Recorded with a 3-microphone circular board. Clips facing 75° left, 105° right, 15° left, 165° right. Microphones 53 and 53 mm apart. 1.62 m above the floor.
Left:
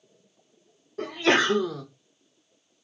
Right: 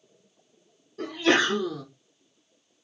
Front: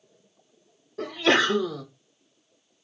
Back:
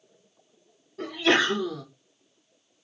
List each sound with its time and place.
1.0 s a sneeze: 35° left, 2 m